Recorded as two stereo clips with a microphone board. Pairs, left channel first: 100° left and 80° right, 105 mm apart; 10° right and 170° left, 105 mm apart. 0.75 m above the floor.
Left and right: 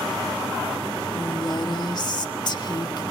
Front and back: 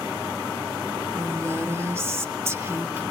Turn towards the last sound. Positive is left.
turn(degrees=115)